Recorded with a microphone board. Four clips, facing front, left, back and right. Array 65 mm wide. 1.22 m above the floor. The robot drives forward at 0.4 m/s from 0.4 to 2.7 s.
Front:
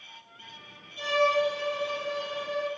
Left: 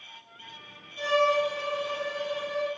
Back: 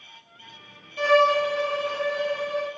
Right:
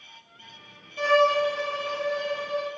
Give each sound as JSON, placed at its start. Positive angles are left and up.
{"t": 1.0, "sound": "a violin", "azimuth_deg": -155, "distance_m": 0.7}